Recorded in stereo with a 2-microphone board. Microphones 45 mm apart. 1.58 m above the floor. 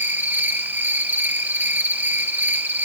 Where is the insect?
45° right (ahead or behind), 1.5 m.